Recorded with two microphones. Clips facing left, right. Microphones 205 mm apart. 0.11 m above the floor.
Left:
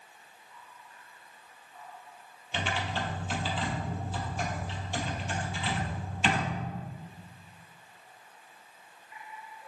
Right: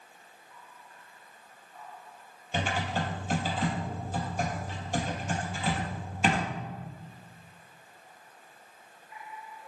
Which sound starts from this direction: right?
Typing on a keyboard, at 2.5 s.